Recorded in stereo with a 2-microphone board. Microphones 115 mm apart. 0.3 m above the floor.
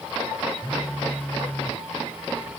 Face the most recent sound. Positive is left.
turn(degrees=15)  # may be behind; listen again after turning